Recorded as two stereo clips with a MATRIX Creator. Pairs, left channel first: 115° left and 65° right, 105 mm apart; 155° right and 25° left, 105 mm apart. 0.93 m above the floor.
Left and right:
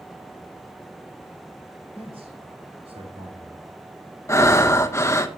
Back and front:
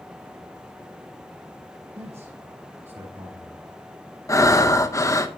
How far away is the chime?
I don't hear a chime.